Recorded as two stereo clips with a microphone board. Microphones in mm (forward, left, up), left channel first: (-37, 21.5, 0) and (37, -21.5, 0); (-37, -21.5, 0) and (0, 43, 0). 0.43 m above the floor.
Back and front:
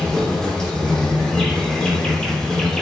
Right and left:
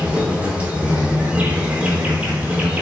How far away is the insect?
About 0.8 m.